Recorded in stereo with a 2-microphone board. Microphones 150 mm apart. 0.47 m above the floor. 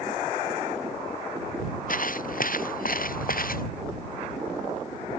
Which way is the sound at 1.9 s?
65° left (ahead or behind).